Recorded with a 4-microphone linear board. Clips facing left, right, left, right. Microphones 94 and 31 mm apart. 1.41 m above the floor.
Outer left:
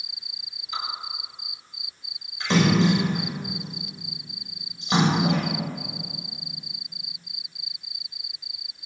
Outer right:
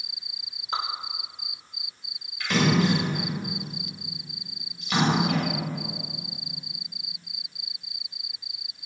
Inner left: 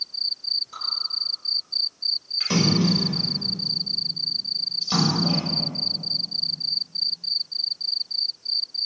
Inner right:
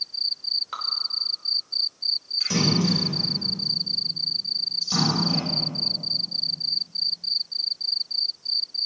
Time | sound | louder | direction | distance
0.7 | dripping | outer right 4 dB, inner right 4 dB | 55° right (ahead or behind) | 3 m
2.4 | a splash | outer left 3 dB, inner left 2 dB | 30° left (ahead or behind) | 7.5 m